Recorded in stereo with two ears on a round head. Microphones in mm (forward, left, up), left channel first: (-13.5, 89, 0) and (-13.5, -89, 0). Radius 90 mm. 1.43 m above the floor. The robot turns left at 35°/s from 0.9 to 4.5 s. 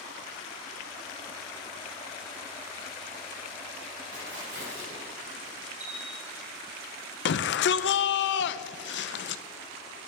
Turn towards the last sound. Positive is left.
turn(degrees=60)  # may be behind; listen again after turning